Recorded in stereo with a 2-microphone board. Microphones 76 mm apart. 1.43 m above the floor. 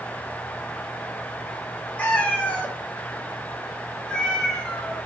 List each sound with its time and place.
2.0 s a cat meowing: 20° left (ahead or behind), 1.0 m; by 5.0 s 10° left (ahead or behind), 1.8 m